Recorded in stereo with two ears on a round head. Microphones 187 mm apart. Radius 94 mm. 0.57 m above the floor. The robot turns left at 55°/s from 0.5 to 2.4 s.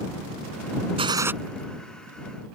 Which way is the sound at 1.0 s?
30° right (ahead or behind).